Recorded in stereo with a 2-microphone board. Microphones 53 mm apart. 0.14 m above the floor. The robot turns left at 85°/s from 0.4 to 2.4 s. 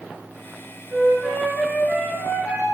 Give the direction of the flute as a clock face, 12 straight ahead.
4 o'clock.